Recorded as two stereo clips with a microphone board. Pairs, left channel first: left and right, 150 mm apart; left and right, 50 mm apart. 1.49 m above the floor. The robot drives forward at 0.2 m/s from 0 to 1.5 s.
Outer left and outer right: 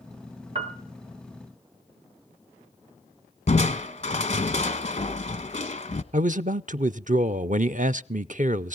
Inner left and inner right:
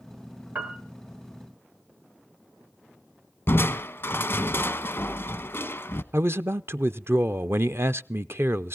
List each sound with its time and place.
0.6 s a piano: 40° right (ahead or behind), 1.5 m
3.5 s crushing: 45° left (ahead or behind), 0.9 m
6.1 s a man speaking: 55° right (ahead or behind), 0.6 m